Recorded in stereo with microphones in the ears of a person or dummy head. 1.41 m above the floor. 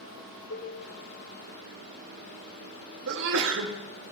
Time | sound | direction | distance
0.5 | a cowbell | 70° left (ahead or behind) | 3 m
3.1 | a sneeze | 55° right (ahead or behind) | 0.9 m